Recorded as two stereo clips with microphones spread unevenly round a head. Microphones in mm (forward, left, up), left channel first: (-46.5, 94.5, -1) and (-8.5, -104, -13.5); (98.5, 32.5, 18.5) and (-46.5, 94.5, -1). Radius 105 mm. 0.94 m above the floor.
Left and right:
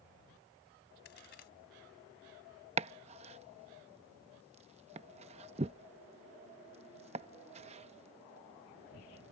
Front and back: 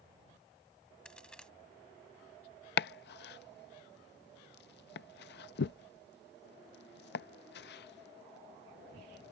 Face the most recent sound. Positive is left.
turn(degrees=-20)